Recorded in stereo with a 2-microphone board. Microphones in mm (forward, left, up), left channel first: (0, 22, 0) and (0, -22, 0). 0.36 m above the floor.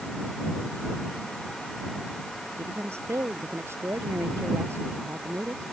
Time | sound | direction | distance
2.6 | a woman speaking | 80° right | ?